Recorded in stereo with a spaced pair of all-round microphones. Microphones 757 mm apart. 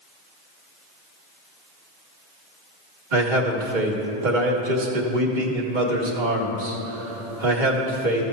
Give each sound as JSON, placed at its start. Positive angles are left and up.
{"t": 3.1, "sound": "a man speaking", "side_deg": -85, "distance_m": 1.6}